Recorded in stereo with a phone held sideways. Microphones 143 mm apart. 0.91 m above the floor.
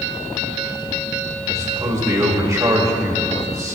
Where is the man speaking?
25° right (ahead or behind), 1.9 m.